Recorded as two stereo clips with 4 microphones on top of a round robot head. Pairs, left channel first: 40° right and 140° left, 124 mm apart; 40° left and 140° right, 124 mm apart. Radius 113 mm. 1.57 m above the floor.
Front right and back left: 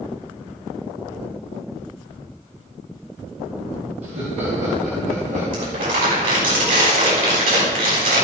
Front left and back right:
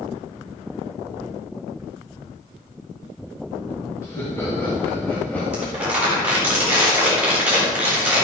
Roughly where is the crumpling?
Behind left.